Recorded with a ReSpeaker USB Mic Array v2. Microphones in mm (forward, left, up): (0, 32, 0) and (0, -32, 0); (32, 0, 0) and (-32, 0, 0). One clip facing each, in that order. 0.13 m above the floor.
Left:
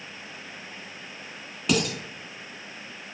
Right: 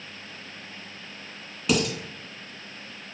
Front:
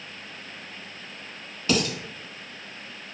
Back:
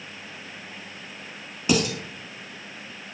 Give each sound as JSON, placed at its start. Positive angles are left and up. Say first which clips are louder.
{"t": 1.7, "sound": "dishes clattering", "louder": "right 1 dB, back 2 dB", "azimuth_deg": -175, "distance_m": 0.7}